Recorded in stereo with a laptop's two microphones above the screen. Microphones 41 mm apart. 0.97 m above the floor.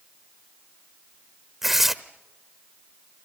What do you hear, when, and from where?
1.6 s tearing paper: 5° right (ahead or behind), 0.8 m